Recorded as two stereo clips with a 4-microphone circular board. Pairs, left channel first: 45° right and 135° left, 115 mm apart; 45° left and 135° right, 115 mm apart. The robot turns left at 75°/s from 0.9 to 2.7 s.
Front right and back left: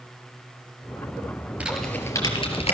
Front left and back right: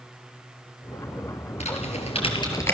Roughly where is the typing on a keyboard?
Ahead left.